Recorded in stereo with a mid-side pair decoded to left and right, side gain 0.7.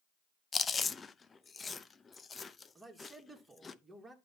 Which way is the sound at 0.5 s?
20° left.